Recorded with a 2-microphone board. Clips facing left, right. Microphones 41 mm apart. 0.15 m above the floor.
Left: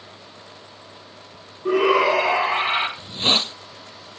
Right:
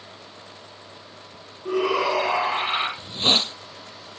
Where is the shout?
45° left (ahead or behind), 2.0 m.